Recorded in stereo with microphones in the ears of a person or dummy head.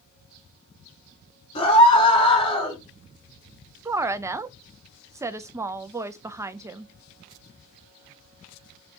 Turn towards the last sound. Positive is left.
turn(degrees=-15)  # may be behind; listen again after turning